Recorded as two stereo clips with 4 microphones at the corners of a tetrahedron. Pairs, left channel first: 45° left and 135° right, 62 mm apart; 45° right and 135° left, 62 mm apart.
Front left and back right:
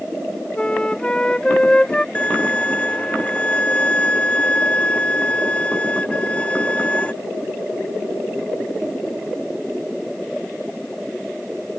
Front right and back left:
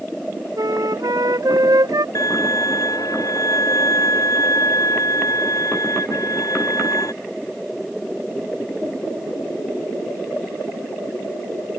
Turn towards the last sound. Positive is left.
turn(degrees=-25)